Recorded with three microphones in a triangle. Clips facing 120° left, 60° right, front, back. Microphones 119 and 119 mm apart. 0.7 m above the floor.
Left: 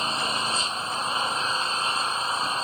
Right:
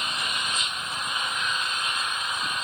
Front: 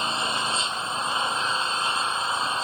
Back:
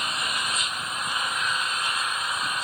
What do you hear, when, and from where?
0.0 s an engine running: 60° left